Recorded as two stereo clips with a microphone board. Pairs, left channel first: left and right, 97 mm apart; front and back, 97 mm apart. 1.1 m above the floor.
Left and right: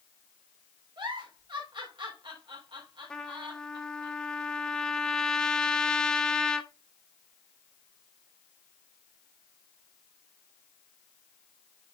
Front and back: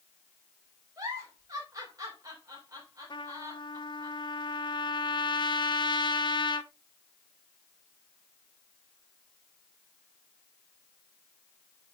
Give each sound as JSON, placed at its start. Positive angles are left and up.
{"t": 1.0, "sound": "a giggle", "azimuth_deg": -125, "distance_m": 3.5}
{"t": 3.1, "sound": "a trumpet", "azimuth_deg": 10, "distance_m": 0.9}